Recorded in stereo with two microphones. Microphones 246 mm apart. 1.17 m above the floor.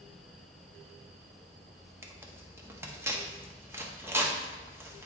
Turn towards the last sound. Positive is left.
turn(degrees=-10)  # may be behind; listen again after turning